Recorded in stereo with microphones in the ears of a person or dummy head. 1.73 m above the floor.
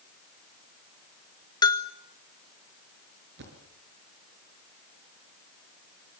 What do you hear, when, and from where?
1.6 s a bell: 20° left (ahead or behind), 1.4 m
3.4 s a thud: 65° right (ahead or behind), 5.5 m